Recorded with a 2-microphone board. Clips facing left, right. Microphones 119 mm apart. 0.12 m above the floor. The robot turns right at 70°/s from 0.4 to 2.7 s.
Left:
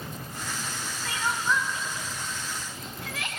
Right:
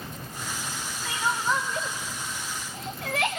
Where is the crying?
5° right (ahead or behind), 2 m; by 3.4 s 60° right (ahead or behind), 2 m.